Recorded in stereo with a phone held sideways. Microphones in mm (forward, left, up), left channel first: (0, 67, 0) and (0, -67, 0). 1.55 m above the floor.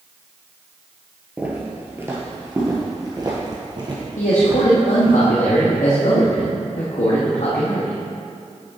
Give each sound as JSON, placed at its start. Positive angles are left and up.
{"t": 1.4, "sound": "footsteps", "side_deg": -10, "distance_m": 1.6}
{"t": 4.2, "sound": "a man speaking", "side_deg": 70, "distance_m": 1.2}